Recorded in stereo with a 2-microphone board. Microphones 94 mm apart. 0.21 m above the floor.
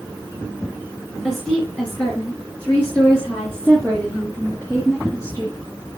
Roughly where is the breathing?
No breathing in this recording.